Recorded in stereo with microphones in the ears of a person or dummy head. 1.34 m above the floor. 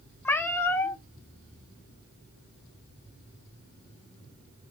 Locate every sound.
0.2 s a cat meowing: 15° left (ahead or behind), 1.0 m